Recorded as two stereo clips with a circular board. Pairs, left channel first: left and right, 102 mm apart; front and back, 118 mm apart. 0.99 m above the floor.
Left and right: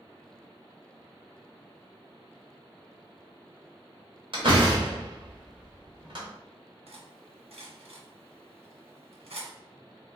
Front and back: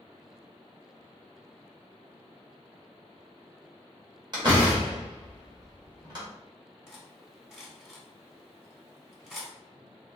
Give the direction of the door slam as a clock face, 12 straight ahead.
4 o'clock.